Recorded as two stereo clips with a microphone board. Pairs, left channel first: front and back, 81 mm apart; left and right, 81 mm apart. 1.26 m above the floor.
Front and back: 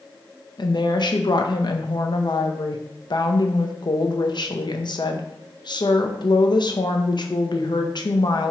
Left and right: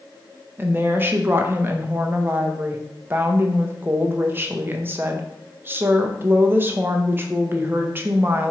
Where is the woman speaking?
25° right, 0.6 m.